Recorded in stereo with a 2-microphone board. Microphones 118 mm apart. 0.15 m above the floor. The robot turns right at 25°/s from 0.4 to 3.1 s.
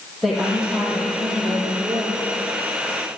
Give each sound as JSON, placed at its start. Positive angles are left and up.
{"t": 0.2, "sound": "a woman speaking", "azimuth_deg": -175, "distance_m": 4.5}